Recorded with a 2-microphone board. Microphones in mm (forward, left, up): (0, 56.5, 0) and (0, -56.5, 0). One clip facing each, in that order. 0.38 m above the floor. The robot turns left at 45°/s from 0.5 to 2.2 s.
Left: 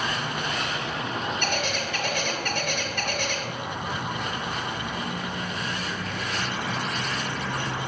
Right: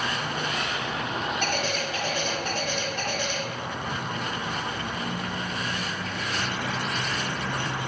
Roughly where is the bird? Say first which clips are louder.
Even; left.